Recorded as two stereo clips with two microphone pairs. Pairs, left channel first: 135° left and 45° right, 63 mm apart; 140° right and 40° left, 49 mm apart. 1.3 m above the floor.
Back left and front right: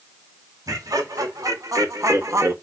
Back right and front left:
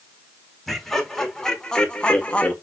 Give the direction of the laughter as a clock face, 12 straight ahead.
2 o'clock.